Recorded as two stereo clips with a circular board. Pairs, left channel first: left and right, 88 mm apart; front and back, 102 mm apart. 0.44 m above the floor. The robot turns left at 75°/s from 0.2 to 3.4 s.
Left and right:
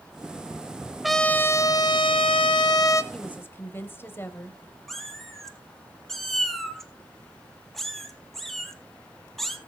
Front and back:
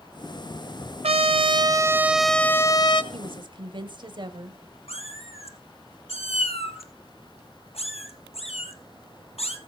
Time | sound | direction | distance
1.0 | a trumpet | straight behind | 1.0 m
3.1 | a woman speaking | 170° left | 1.7 m
4.9 | a cat meowing | straight ahead | 1.8 m